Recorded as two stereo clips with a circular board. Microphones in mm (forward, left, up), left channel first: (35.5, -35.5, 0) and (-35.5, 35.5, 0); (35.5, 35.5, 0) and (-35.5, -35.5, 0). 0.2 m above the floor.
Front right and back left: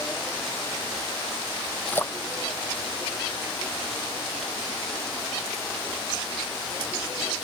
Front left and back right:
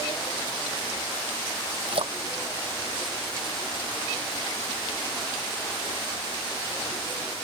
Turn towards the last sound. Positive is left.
turn(degrees=-115)